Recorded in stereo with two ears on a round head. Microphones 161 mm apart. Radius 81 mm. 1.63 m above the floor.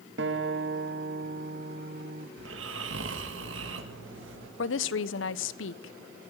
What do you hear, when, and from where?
0.2 s a guitar: 70° right (ahead or behind), 1.8 m
2.4 s snoring: 80° right, 2 m
4.6 s a woman speaking: 80° left, 1.0 m